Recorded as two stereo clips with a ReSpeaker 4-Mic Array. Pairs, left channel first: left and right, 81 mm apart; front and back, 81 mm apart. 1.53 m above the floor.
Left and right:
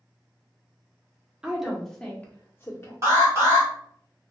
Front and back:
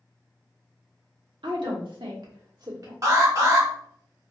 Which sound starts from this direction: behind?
A woman speaking, at 1.4 s.